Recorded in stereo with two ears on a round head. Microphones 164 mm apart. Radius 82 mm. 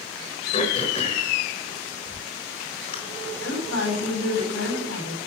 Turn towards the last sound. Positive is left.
turn(degrees=80)